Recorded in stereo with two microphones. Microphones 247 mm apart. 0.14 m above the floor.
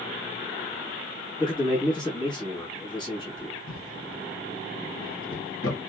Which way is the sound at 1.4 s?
20° left (ahead or behind).